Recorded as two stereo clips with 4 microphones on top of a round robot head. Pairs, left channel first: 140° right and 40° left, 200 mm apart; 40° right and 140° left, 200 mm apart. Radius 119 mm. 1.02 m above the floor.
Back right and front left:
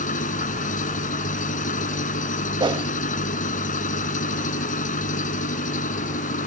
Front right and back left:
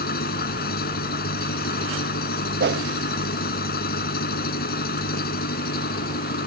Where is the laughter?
I don't hear laughter.